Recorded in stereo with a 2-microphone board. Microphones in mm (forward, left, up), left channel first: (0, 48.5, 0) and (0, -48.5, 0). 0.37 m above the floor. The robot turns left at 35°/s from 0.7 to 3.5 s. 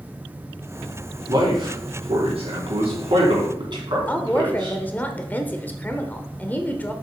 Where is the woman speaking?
15° left (ahead or behind), 0.9 m.